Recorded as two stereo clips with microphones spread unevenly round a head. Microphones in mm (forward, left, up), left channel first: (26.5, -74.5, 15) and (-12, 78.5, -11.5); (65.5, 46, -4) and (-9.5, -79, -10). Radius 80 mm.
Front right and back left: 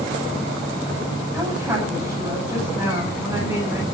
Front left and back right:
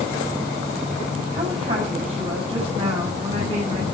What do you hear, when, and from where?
1.3 s a woman speaking: 175° right, 9.5 m